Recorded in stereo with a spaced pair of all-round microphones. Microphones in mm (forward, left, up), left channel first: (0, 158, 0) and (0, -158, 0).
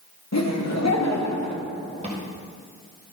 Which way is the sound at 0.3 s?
55° left (ahead or behind).